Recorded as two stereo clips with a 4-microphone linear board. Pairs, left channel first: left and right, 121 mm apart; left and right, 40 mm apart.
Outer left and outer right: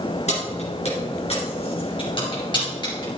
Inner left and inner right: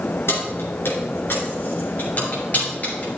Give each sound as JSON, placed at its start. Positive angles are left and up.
{"t": 0.3, "sound": "keys jangling", "side_deg": 70, "distance_m": 3.0}